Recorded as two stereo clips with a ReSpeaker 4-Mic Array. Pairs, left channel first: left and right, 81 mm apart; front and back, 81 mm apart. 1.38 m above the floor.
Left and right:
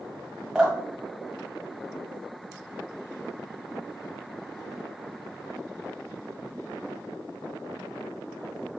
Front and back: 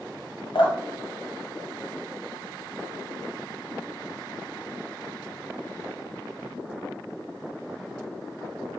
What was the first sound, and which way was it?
Dripping, 5° right.